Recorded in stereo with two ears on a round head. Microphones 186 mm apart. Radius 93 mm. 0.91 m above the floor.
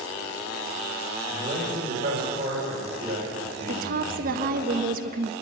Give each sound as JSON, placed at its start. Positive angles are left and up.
{"t": 1.3, "sound": "a man speaking", "side_deg": -30, "distance_m": 4.0}
{"t": 3.7, "sound": "a woman speaking", "side_deg": -45, "distance_m": 1.1}